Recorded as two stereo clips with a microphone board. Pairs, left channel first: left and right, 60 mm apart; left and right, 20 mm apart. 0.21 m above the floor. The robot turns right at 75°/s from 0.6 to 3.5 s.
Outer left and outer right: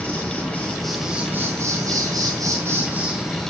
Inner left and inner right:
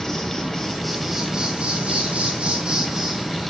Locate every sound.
0.0 s an insect: 155° left, 2 m; by 3.5 s 15° left, 2 m